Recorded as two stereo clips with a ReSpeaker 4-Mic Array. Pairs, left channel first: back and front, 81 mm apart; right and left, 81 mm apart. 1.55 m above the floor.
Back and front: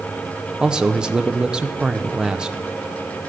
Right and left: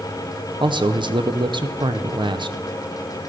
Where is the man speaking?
80° left, 0.7 m.